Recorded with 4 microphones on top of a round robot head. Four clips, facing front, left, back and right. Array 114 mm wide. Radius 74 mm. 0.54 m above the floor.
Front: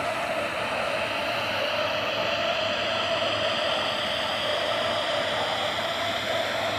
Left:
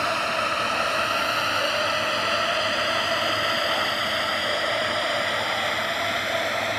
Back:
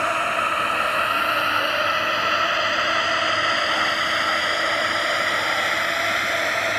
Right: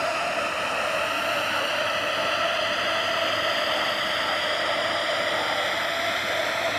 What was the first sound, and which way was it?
A drone, 160° left.